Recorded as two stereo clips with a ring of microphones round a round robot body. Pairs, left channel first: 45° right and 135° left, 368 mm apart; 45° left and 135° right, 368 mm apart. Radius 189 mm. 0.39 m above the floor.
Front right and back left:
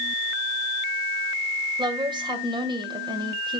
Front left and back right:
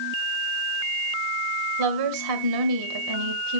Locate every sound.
1.8 s a woman speaking: 150° right, 2 m